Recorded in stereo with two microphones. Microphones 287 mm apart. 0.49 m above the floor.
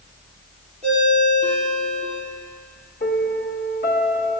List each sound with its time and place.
0.8 s a ringtone: 25° right (ahead or behind), 6 m
3.0 s a piano: 35° left (ahead or behind), 1.5 m